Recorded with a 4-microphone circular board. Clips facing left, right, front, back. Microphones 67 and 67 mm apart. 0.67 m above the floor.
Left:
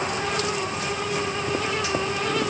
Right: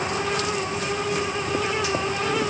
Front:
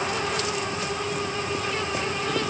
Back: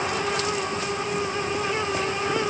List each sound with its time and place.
Only background noise.